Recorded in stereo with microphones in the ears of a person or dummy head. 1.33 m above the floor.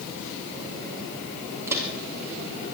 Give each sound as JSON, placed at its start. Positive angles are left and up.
{"t": 1.7, "sound": "footsteps", "side_deg": -10, "distance_m": 4.5}